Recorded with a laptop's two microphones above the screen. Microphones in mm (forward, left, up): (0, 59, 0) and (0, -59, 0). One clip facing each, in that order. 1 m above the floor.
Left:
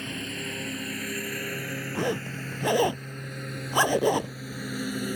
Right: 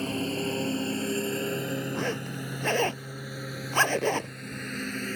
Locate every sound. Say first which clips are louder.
0.0 s a lawn mower: right 6 dB; 35° right (ahead or behind); by 5.2 s 10° left (ahead or behind)
1.9 s a zipper: left 2 dB; 15° left (ahead or behind)